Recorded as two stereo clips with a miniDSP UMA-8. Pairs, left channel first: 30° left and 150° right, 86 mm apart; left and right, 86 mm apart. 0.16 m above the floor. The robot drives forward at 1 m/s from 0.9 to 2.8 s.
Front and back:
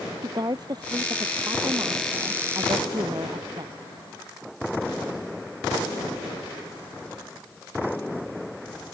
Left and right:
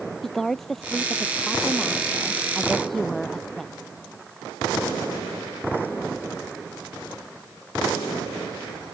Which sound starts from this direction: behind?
A woman speaking, at 0.2 s.